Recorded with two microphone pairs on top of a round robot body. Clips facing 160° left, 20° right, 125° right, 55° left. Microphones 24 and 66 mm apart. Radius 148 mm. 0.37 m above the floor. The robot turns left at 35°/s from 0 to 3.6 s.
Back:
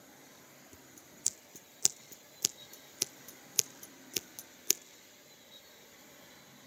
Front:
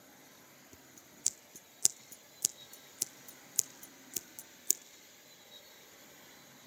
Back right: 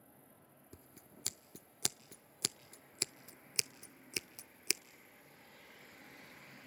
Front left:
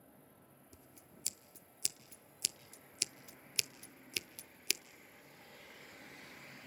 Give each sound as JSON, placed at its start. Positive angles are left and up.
{"t": 0.7, "sound": "scissors", "azimuth_deg": -90, "distance_m": 0.7}